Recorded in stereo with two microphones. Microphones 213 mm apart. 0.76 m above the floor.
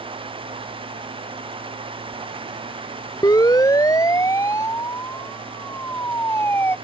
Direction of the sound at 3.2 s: 20° left (ahead or behind).